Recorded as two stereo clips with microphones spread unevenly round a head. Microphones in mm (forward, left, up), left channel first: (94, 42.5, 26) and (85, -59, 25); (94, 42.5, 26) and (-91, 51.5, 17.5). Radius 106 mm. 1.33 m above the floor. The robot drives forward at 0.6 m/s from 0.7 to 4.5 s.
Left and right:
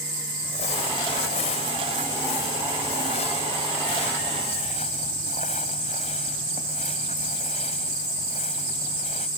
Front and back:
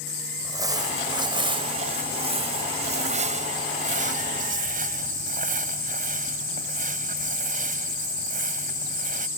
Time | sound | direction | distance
0.4 | crumpling | 110° left | ?